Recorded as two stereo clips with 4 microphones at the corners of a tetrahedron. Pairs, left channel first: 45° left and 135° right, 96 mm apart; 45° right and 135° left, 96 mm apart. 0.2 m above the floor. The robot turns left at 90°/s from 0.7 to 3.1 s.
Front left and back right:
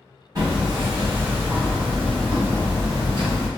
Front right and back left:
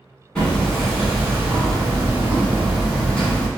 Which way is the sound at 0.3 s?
120° right.